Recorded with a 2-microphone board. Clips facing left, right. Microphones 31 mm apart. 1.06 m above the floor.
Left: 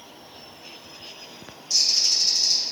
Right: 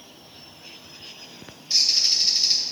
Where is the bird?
35° right (ahead or behind), 1.2 m.